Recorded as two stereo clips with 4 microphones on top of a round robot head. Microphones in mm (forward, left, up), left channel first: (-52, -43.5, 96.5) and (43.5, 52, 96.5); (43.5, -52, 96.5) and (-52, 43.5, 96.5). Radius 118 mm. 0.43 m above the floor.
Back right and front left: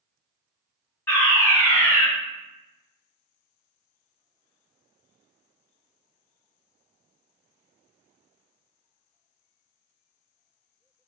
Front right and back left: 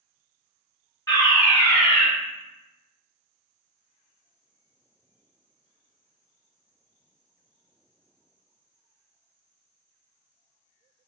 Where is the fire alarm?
90° right, 1.8 m.